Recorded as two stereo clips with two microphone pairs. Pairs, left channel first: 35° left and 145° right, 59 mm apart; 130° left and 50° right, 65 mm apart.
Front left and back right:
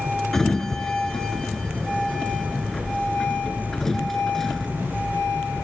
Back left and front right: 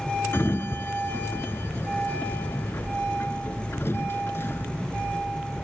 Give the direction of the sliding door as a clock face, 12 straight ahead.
8 o'clock.